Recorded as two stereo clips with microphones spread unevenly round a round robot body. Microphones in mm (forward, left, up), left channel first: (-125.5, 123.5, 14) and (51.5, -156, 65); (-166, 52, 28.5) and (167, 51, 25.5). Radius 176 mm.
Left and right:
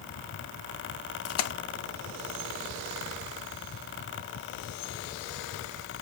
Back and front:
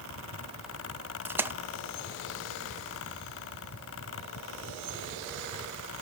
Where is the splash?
85° left, 0.7 m.